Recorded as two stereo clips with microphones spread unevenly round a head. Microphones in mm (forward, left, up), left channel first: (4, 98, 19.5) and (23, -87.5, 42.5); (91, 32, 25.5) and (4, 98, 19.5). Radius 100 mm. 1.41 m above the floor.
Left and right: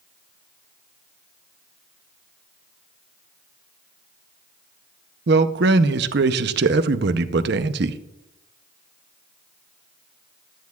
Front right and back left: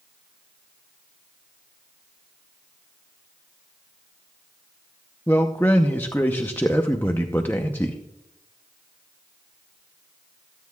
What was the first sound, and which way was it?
A man speaking, 115° right.